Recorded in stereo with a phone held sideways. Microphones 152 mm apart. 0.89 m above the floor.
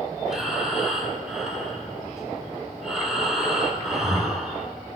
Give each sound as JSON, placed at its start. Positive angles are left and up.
{"t": 0.3, "sound": "breathing", "side_deg": -5, "distance_m": 1.6}